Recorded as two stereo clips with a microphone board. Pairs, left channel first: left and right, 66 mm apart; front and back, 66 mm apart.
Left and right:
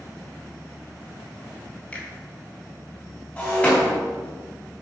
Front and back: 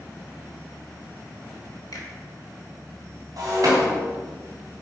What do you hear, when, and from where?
1.9 s a finger snap: 20° left, 2 m
3.4 s breaking glass: 155° left, 3 m